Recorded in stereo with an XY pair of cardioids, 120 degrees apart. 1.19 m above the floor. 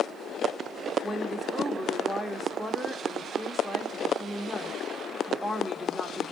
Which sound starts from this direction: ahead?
A woman speaking, at 1.0 s.